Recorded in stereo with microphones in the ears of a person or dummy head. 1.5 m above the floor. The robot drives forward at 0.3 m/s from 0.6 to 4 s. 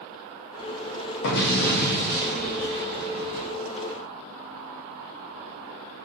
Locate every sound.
1.2 s an explosion: 50° left (ahead or behind), 0.6 m; by 3.5 s 25° left (ahead or behind), 1.1 m